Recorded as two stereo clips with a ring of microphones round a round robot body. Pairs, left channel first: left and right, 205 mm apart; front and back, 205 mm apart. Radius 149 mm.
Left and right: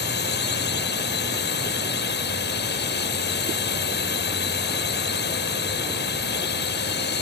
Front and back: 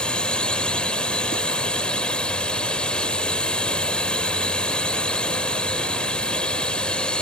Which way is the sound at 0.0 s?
85° left.